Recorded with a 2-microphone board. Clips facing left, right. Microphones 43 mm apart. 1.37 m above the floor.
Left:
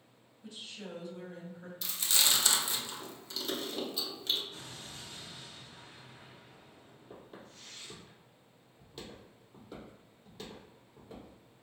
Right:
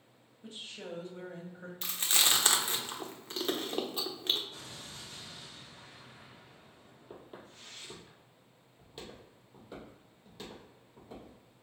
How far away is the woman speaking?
About 1.2 m.